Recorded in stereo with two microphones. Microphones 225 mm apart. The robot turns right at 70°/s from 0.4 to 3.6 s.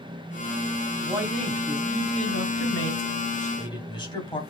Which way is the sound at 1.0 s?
20° right.